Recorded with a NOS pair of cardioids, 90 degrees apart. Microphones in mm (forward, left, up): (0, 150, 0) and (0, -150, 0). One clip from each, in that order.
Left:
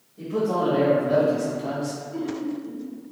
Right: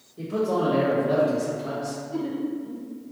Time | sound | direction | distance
0.2 | a man speaking | 40° right | 1.4 m
2.1 | laughter | 30° right | 0.8 m